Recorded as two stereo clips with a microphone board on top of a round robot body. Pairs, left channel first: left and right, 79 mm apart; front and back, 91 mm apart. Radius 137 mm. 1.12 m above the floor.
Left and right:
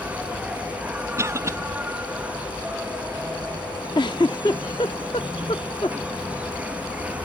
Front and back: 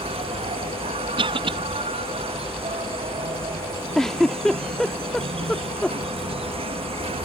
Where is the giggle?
85° left.